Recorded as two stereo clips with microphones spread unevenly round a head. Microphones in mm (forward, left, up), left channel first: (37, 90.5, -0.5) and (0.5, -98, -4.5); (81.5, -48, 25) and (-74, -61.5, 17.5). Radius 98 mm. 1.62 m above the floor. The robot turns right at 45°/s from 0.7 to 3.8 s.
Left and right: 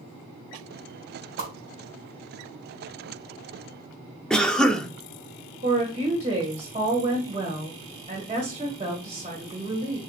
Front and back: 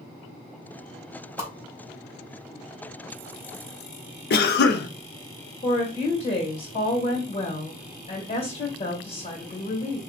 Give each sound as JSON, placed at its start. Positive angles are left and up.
{"t": 1.4, "sound": "a whoosh", "azimuth_deg": -115, "distance_m": 3.0}
{"t": 4.3, "sound": "a cough", "azimuth_deg": -10, "distance_m": 0.7}
{"t": 5.6, "sound": "a woman speaking", "azimuth_deg": -40, "distance_m": 1.7}